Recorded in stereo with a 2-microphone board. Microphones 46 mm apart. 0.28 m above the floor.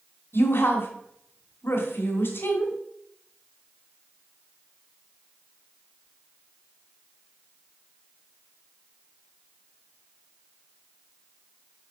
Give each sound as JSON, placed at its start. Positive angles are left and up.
{"t": 0.3, "sound": "a woman speaking", "side_deg": 60, "distance_m": 2.0}